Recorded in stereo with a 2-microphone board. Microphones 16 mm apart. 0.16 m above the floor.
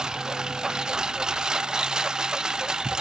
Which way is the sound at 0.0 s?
50° right (ahead or behind).